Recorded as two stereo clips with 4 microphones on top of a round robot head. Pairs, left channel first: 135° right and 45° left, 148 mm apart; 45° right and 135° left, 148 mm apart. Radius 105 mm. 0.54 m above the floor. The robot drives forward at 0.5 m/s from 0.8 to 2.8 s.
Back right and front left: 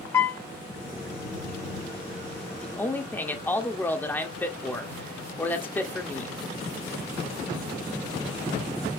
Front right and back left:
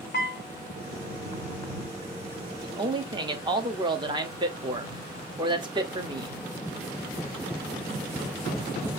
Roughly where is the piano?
Ahead right.